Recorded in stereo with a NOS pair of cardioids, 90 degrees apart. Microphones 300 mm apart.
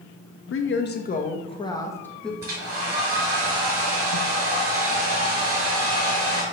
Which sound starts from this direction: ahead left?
A woman speaking, at 0.5 s.